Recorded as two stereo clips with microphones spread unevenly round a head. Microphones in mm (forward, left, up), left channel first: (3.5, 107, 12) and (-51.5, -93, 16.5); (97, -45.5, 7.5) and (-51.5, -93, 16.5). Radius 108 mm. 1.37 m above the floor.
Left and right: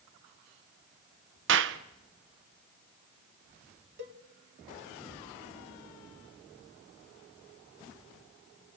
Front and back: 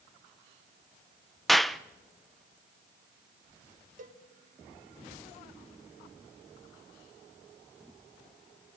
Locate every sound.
1.5 s a clap: 70° right, 1.0 m
4.0 s a cowbell: 135° right, 2.0 m